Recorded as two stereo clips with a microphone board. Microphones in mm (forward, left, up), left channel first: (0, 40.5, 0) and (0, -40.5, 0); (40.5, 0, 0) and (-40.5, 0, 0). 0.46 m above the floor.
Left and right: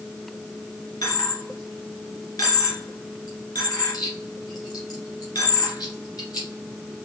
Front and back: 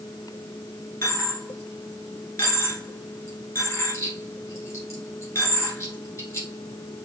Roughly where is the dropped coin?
Ahead left.